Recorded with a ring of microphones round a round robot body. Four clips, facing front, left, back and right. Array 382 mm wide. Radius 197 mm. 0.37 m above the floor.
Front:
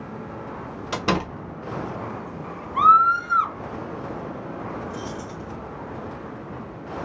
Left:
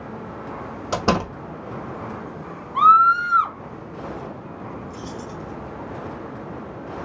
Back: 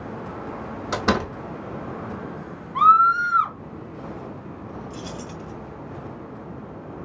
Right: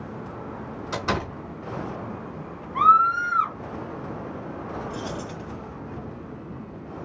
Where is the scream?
90° left, 2 m.